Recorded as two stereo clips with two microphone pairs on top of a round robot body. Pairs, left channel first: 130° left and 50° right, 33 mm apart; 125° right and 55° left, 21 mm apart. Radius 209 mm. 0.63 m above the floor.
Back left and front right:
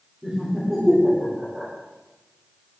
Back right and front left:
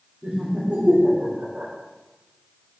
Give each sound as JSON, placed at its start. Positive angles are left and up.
{"t": 0.2, "sound": "laughter", "azimuth_deg": 25, "distance_m": 3.0}